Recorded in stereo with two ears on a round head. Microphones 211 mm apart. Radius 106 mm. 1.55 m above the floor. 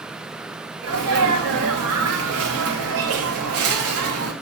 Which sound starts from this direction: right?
A sneeze, at 0.8 s.